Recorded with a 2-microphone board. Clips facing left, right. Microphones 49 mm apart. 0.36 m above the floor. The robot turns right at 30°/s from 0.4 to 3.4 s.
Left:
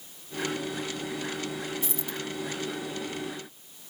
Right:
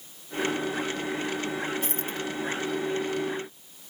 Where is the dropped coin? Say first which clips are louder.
Right 3 dB; 45° right (ahead or behind); by 2.2 s 55° right (ahead or behind).